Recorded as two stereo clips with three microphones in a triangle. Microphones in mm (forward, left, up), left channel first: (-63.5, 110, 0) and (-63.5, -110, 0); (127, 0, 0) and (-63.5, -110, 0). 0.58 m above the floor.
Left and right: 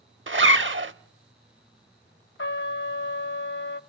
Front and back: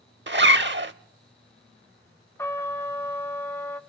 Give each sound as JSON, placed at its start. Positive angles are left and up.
{"t": 0.3, "sound": "a zipper", "azimuth_deg": -115, "distance_m": 0.6}
{"t": 2.4, "sound": "a trumpet", "azimuth_deg": 105, "distance_m": 0.7}